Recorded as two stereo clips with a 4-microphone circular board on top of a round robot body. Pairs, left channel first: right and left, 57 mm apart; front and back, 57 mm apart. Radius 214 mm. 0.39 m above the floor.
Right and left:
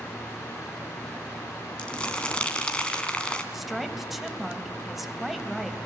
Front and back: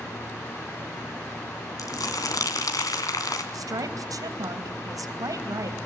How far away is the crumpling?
About 2.5 m.